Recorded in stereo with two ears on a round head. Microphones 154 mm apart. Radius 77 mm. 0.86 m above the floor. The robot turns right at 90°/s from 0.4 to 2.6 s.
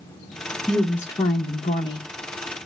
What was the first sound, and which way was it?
A woman speaking, centre (ahead or behind).